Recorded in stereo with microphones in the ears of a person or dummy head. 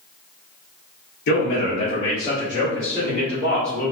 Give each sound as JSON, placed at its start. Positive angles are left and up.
{"t": 1.3, "sound": "a man speaking", "side_deg": 60, "distance_m": 1.2}